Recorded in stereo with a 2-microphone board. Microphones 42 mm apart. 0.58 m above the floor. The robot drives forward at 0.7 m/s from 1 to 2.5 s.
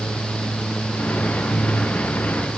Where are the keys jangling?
No keys jangling in this recording.